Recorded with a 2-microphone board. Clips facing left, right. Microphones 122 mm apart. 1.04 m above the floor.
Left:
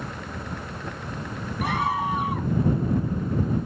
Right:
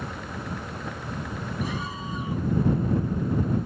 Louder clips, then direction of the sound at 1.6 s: Left 12 dB; 60° left (ahead or behind).